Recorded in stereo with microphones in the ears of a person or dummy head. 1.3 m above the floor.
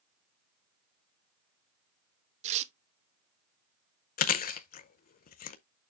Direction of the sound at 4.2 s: 50° left (ahead or behind).